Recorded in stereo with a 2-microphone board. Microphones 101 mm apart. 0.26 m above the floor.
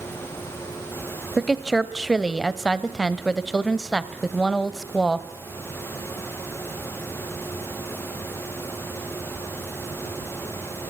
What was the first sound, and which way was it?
A woman speaking, centre (ahead or behind).